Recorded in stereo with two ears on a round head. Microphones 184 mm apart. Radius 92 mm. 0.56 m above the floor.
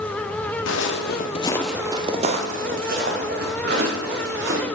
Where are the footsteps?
65° left (ahead or behind), 1.2 m; by 4.7 s 55° right (ahead or behind), 4 m.